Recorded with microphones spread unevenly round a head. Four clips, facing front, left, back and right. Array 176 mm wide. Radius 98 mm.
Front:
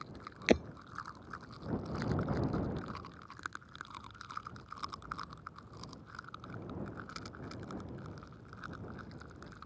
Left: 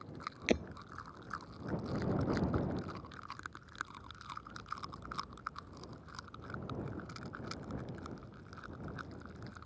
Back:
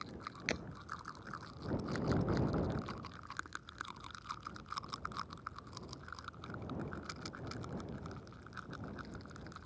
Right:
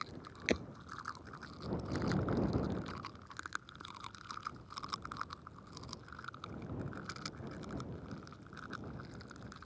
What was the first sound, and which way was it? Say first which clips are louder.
Breaking glass: left 3 dB, front 14 dB; 10° left.